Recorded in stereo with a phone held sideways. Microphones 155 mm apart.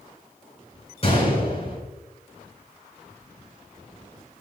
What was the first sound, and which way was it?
A gunshot, 40° left (ahead or behind).